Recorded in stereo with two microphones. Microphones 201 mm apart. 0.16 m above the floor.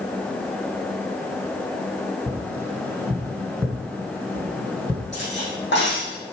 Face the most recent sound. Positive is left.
turn(degrees=65)  # may be behind; listen again after turning